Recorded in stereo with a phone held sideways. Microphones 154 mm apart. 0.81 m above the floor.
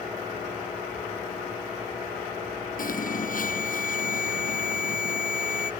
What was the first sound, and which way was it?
An alarm, 65° left (ahead or behind).